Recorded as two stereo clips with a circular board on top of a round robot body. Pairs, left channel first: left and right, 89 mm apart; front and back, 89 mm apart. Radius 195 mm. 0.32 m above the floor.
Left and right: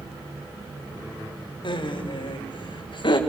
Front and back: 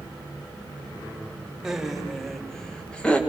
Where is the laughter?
95° left, 3 m; by 3.2 s 75° left, 3 m.